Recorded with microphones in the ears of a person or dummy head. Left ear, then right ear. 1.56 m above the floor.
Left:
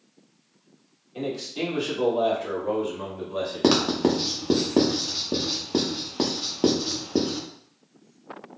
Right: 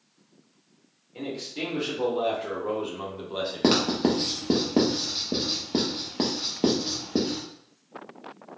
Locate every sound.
1.1 s a man speaking: 15° left (ahead or behind), 1.8 m; by 4.6 s 55° right (ahead or behind), 1.1 m
3.6 s writing: 5° left (ahead or behind), 0.8 m